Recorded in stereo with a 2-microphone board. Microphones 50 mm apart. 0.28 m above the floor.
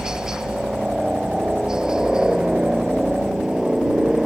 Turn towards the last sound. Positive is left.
turn(degrees=-10)  # may be behind; listen again after turning